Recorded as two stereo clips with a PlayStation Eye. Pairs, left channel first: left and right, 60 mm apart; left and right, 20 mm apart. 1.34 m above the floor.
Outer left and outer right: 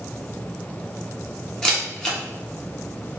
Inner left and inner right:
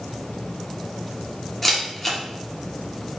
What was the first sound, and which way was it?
A camera shutter, 10° left (ahead or behind).